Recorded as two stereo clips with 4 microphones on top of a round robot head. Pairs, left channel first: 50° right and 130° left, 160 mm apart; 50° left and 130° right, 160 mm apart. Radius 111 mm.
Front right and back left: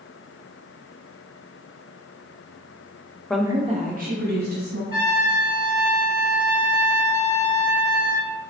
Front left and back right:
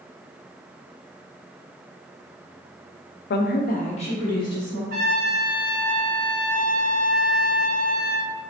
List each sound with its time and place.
3.3 s a woman speaking: 40° left, 0.6 m; by 4.8 s 120° left, 1.9 m
4.9 s a trumpet: 170° right, 1.8 m